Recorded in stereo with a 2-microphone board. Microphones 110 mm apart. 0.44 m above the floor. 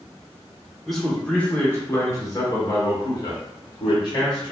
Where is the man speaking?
Centre (ahead or behind), 1.0 m; by 4.5 s 45° left (ahead or behind), 1.8 m.